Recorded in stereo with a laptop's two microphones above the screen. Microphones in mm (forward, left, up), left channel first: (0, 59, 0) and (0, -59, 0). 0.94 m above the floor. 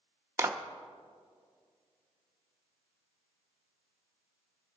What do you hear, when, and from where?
0.4 s a clap: 25° right (ahead or behind), 0.6 m